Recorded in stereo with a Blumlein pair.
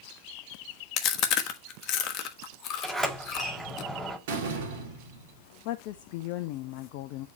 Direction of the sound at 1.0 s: 35° left.